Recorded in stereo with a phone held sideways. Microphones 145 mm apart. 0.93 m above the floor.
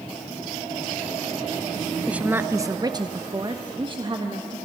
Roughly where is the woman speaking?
Centre.